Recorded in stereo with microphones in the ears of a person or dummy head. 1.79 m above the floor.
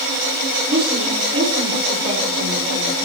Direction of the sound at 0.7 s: 30° right (ahead or behind).